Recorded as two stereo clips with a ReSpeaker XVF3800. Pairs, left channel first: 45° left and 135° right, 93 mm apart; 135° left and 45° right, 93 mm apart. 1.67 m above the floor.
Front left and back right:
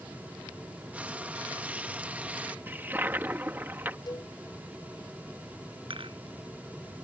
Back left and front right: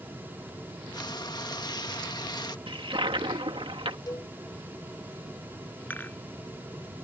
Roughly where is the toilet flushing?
Ahead right.